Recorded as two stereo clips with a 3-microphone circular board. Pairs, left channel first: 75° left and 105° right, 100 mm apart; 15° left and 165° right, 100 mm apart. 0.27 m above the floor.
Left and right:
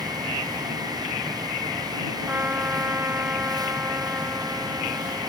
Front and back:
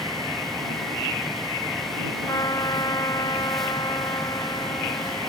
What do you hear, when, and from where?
2.3 s a trumpet: 35° right